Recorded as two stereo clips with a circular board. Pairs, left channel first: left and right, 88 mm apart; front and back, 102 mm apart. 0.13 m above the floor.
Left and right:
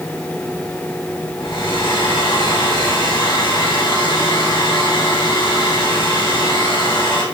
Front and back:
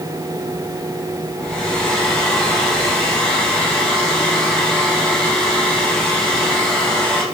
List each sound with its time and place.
1.4 s a hair dryer: 85° left, 5 m